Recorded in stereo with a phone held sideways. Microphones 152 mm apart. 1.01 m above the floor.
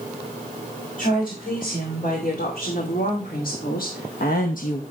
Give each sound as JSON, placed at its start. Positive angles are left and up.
{"t": 1.0, "sound": "a woman speaking", "side_deg": 60, "distance_m": 4.0}